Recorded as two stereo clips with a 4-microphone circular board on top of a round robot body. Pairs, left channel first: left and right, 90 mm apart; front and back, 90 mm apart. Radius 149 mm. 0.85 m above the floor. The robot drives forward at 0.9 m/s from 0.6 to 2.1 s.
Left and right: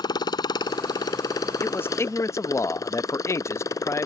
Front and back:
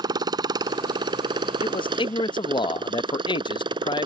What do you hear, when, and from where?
0.0 s a motorcycle: 135° left; by 4.0 s 145° left
1.6 s a man speaking: 20° left; by 4.0 s 30° left